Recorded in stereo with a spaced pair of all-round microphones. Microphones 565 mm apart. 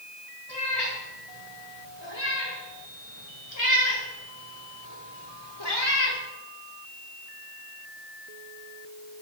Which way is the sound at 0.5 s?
45° left (ahead or behind).